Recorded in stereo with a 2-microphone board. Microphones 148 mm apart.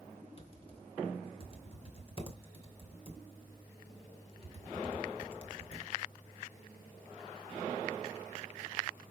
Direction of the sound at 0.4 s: 40° left (ahead or behind).